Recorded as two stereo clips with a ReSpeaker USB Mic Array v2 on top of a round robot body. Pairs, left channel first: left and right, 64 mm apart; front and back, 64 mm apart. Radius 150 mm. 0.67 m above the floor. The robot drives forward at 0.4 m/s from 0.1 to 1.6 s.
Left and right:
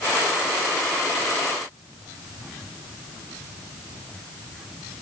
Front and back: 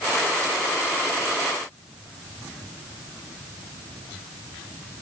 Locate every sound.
Only background noise.